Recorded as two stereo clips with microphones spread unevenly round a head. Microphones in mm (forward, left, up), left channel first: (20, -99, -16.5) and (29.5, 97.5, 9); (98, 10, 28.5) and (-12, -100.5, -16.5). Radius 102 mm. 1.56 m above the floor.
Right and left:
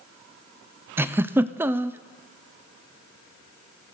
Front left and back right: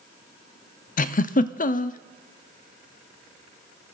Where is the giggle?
5° left, 0.5 m.